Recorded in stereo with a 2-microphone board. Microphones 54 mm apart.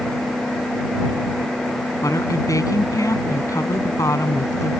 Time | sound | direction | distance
2.0 | a woman speaking | 80° left | ?